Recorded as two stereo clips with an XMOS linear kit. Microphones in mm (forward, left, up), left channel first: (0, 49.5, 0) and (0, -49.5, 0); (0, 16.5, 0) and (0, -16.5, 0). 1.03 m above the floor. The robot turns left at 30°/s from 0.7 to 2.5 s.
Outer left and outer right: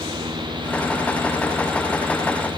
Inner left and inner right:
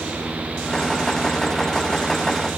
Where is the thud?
No thud in this recording.